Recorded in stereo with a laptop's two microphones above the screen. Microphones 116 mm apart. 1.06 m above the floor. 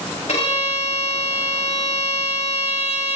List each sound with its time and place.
0.3 s a violin: 80° left, 1.7 m